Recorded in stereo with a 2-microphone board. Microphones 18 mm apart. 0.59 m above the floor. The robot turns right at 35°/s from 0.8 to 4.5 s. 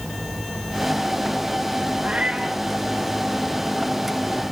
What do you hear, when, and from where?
2.0 s a cat meowing: 75° right (ahead or behind), 4 m; by 2.6 s 60° right (ahead or behind), 4 m